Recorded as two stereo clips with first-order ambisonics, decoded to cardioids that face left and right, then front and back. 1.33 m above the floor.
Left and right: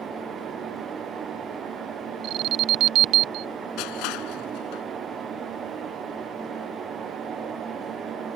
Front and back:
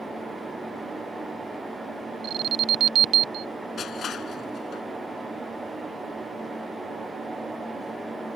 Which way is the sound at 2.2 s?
125° right.